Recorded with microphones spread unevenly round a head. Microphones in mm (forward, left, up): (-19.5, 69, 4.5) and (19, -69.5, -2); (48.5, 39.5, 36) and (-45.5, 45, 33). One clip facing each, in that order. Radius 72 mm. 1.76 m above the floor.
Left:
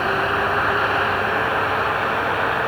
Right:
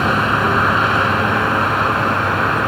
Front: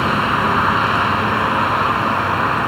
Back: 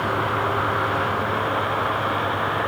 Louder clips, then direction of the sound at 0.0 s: Right 4 dB, front 6 dB; 45° right.